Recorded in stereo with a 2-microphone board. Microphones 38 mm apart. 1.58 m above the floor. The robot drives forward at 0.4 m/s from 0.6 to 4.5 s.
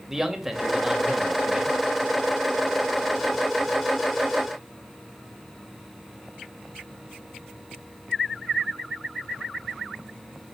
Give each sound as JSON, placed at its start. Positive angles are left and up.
{"t": 0.1, "sound": "a man speaking", "side_deg": -15, "distance_m": 2.5}